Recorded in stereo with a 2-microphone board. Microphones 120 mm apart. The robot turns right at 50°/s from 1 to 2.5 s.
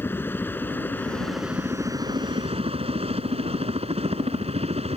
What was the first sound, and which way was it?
A helicopter, 20° left (ahead or behind).